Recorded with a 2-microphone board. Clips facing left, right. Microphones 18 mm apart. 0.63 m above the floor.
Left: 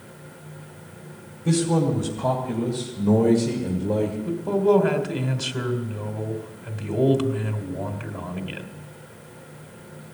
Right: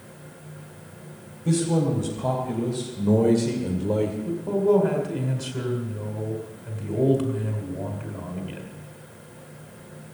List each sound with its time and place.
1.4 s a man speaking: 10° left (ahead or behind), 3 m; by 4.2 s 30° right (ahead or behind), 1.6 m
4.3 s a man speaking: 25° left (ahead or behind), 2.5 m